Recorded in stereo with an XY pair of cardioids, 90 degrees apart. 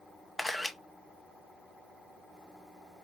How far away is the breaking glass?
I don't hear breaking glass.